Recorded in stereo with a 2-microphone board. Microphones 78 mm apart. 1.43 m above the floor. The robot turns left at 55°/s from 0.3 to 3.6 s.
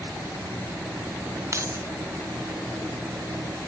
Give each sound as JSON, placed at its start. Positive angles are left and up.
{"t": 1.5, "sound": "keys jangling", "side_deg": -40}